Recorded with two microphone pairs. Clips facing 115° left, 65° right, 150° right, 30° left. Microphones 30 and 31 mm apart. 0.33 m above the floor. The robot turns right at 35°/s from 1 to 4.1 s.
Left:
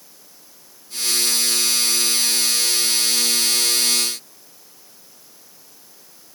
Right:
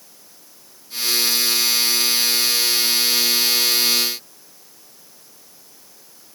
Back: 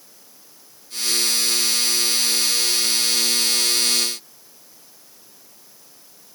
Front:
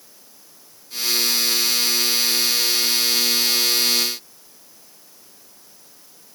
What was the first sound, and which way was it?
Only background noise.